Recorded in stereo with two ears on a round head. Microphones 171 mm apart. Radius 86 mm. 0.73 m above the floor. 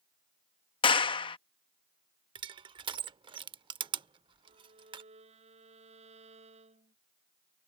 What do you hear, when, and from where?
0.8 s a clap: 25° left (ahead or behind)
2.4 s crushing: 25° right (ahead or behind)
4.4 s a violin: 35° right (ahead or behind)